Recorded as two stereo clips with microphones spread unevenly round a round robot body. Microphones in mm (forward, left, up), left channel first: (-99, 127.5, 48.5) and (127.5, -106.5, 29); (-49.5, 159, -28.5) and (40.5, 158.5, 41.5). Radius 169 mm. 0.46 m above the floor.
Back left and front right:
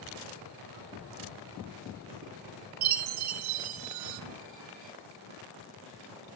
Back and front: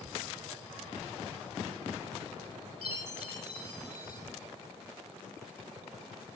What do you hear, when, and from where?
2.8 s a chime: 90° right, 0.8 m